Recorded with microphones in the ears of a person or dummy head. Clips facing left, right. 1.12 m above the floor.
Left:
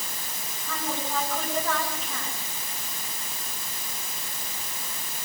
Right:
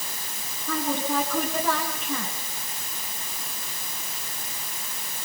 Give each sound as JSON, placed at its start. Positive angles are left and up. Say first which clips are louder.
{"t": 0.7, "sound": "a woman speaking", "louder": "right 6 dB", "side_deg": -55, "distance_m": 8.5}